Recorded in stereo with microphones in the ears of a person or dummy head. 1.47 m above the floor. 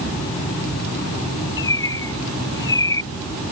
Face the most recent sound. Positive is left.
turn(degrees=20)  # may be behind; listen again after turning